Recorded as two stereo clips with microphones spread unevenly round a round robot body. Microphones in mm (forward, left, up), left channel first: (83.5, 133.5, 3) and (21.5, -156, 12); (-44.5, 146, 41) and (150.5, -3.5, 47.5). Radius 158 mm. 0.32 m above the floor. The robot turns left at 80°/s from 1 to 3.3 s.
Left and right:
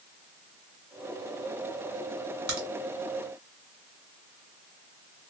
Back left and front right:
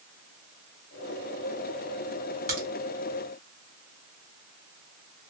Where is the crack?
85° right, 1.9 m; by 2.7 s 95° right, 1.9 m.